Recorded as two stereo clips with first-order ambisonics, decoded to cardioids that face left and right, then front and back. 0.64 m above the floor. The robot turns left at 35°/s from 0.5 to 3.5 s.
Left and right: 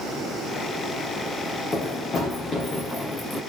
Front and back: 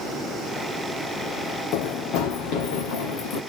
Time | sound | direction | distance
1.7 | running footsteps | 20° left | 1.5 m